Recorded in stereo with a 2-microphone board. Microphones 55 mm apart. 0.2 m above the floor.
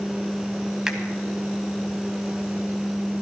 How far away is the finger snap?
About 1.4 m.